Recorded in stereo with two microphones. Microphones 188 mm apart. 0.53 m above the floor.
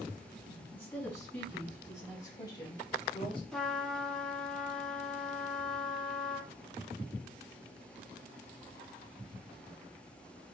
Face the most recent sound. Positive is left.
turn(degrees=5)  # may be behind; listen again after turning